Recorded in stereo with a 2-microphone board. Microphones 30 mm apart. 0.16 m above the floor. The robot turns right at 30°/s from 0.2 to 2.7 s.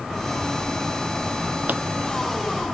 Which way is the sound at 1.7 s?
65° right (ahead or behind).